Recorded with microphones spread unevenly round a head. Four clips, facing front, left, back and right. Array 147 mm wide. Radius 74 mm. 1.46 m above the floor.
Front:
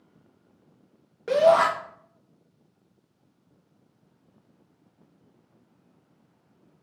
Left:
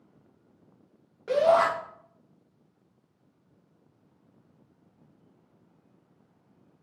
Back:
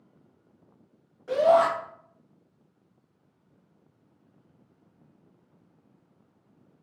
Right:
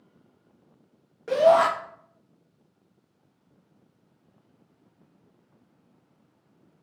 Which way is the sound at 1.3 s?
15° right.